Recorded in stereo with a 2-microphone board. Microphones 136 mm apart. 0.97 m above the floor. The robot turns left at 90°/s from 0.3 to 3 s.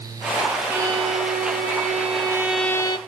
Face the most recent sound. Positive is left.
turn(degrees=140)